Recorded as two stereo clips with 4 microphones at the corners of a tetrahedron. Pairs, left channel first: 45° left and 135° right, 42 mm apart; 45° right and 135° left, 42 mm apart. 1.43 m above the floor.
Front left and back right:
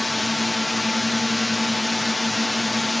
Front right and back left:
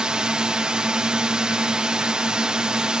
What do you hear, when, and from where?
0.0 s a drone: 135° left